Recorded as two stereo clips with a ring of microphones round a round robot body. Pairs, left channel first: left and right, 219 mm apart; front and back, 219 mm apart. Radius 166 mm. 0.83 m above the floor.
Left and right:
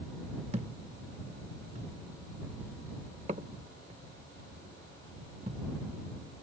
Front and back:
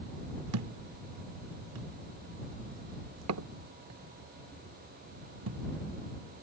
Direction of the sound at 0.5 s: 160° right.